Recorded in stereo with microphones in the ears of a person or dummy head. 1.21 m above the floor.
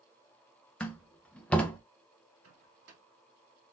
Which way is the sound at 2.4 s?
70° right (ahead or behind).